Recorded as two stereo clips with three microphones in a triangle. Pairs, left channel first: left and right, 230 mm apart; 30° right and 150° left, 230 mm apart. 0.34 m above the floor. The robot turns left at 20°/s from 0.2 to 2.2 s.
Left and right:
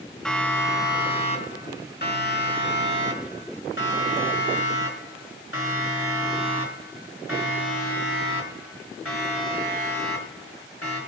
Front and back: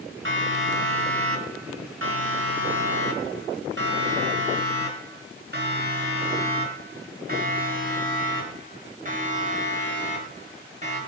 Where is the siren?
175° left, 5 m; by 11.0 s 90° left, 7.5 m.